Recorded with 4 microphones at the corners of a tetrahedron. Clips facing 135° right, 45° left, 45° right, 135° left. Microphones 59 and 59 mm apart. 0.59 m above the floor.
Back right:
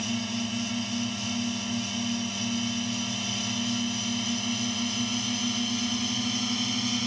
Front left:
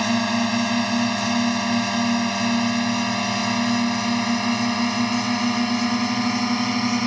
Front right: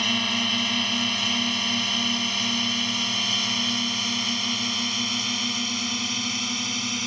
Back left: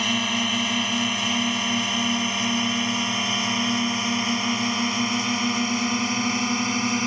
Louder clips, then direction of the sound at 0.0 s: Front left 10 dB, back left 2 dB; 55° left.